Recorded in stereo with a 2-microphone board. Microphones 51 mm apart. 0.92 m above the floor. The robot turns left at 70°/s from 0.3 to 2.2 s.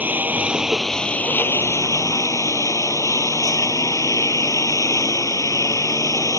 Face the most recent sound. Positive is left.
turn(degrees=80)